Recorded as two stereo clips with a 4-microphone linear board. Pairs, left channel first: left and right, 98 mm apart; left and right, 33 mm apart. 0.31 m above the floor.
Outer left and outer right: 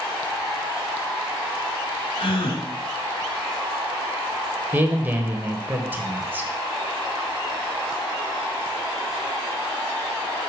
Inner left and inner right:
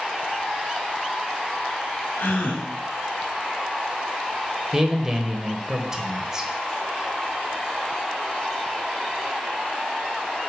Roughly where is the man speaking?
Centre.